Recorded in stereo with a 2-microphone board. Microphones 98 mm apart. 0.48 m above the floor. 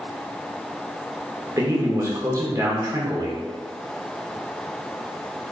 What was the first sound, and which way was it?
A man speaking, 35° right (ahead or behind).